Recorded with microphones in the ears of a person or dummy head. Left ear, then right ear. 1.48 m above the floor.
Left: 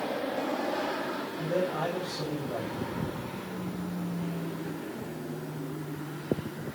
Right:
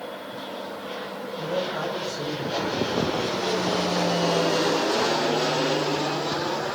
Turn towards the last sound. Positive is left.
turn(degrees=-40)  # may be behind; listen again after turning